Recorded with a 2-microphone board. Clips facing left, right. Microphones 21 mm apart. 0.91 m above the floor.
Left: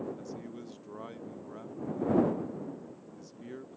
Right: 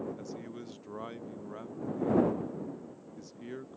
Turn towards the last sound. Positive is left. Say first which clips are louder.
# even
turn(degrees=-15)  # may be behind; listen again after turning